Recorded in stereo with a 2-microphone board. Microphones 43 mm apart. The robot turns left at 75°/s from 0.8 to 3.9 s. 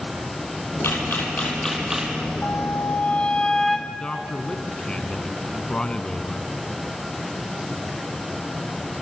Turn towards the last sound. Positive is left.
turn(degrees=20)  # may be behind; listen again after turning